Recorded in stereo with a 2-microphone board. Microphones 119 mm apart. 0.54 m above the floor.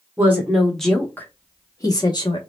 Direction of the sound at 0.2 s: 15° right (ahead or behind).